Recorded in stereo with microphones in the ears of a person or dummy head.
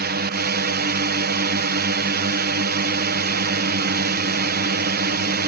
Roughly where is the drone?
Right.